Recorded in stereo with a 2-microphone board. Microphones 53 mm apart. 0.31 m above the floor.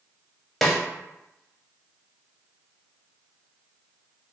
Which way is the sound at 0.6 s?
5° left (ahead or behind).